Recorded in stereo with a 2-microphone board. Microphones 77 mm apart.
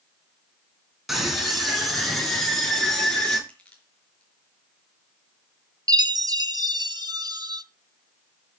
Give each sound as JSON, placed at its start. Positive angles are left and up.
{"t": 1.1, "sound": "a scream", "side_deg": 0, "distance_m": 5.5}
{"t": 3.5, "sound": "crushing", "side_deg": 15, "distance_m": 5.5}
{"t": 5.9, "sound": "a chime", "side_deg": -65, "distance_m": 0.7}